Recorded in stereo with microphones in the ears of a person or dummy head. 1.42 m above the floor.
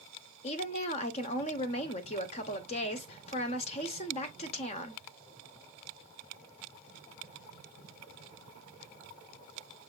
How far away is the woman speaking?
About 0.9 m.